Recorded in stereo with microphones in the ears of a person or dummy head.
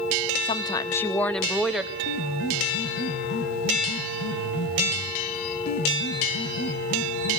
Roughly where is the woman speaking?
Left.